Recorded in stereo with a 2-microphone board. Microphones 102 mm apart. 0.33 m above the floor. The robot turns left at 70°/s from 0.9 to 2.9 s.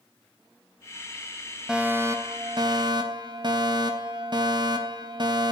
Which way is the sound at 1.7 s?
10° right.